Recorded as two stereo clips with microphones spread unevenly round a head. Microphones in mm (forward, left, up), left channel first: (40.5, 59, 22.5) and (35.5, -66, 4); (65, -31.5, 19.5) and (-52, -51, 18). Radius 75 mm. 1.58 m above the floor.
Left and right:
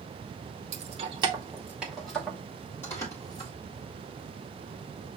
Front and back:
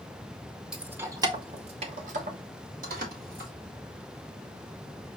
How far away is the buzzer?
I don't hear a buzzer.